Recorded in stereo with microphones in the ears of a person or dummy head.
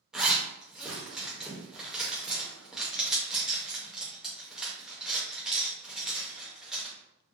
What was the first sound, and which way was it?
A zipper, centre (ahead or behind).